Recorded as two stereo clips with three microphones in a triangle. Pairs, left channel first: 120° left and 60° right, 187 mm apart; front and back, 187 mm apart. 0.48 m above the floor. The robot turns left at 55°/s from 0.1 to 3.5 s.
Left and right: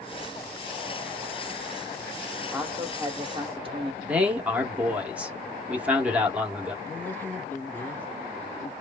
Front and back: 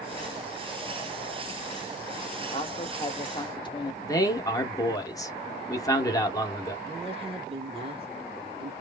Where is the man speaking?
5° left, 0.7 m.